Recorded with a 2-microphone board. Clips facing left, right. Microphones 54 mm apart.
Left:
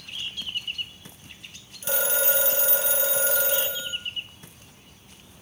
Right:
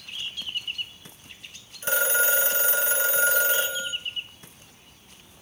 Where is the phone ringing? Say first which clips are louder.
Right 3 dB; 40° right (ahead or behind), 2 m.